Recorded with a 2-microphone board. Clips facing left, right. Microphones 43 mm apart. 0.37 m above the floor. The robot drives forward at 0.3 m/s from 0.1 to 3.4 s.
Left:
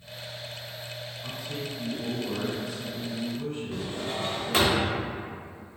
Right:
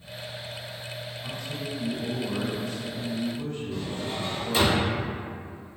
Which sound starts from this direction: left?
A drawer, at 3.7 s.